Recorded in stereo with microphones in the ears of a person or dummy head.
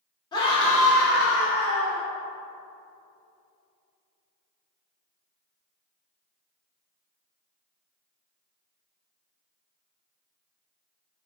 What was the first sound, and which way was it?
A scream, 20° left (ahead or behind).